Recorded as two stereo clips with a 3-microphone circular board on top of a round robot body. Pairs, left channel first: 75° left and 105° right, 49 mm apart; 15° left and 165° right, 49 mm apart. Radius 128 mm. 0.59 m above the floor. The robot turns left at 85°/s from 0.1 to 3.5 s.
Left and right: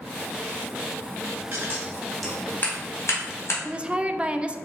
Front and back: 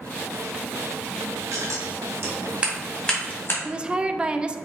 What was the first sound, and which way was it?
Scissors, 140° right.